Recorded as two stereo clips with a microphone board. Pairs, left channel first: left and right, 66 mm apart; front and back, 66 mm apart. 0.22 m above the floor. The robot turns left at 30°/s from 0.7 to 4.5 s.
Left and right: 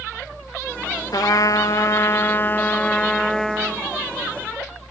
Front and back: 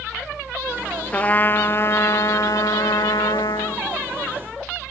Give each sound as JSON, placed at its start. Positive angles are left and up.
{"t": 1.1, "sound": "a trumpet", "azimuth_deg": 70, "distance_m": 1.1}